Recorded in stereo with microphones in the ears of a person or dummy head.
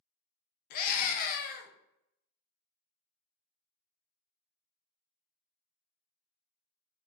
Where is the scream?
50° left (ahead or behind), 0.8 m.